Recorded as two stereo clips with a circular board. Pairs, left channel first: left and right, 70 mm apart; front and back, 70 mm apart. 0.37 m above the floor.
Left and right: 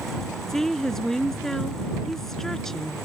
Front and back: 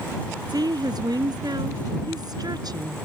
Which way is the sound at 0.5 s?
175° left.